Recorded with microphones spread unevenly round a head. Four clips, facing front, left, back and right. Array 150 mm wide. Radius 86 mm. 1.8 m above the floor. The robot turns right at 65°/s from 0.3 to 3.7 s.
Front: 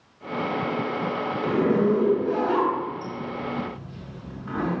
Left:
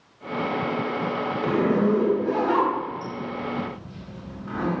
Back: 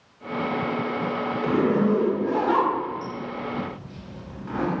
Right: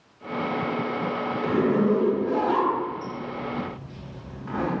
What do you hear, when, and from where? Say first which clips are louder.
1.4 s a zipper: even, even; 75° left, 1.7 m; by 4.8 s 135° right, 1.7 m